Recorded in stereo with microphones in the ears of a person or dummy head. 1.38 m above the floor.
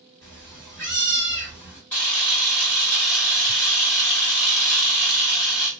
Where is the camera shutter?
5° left (ahead or behind), 1.2 m.